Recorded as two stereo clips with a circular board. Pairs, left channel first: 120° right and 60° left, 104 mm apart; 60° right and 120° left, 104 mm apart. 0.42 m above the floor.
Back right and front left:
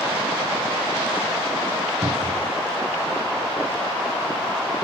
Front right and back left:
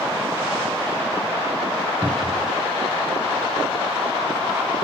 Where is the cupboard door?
25° left, 2 m.